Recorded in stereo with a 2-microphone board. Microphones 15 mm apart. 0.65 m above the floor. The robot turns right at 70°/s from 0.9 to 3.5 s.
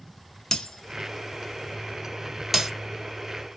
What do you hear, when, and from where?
0.5 s breaking glass: 60° left (ahead or behind), 0.6 m; by 2.7 s 30° right (ahead or behind), 0.6 m